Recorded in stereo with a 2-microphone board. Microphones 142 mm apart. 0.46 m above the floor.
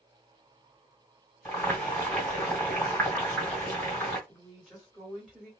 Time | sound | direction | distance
1.4 | boiling | 15° left (ahead or behind) | 2 m
4.3 | a woman speaking | centre (ahead or behind) | 2 m